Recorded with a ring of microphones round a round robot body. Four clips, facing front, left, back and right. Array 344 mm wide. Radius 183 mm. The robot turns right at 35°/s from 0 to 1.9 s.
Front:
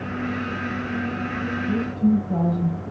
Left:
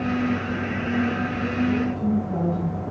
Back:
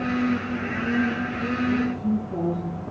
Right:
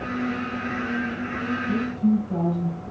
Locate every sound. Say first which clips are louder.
1.7 s a woman speaking: even, front 6 dB; 15° left, 3 m; by 2.8 s 25° left, 3 m